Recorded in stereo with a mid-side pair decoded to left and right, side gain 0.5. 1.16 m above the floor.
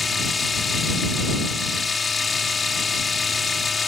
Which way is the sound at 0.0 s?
30° left.